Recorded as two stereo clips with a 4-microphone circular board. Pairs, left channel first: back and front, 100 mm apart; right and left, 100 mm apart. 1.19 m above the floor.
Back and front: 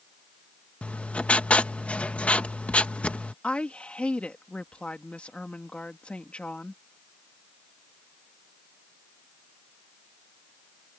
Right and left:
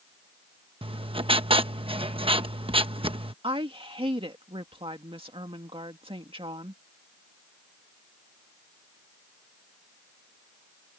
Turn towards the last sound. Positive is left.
turn(degrees=105)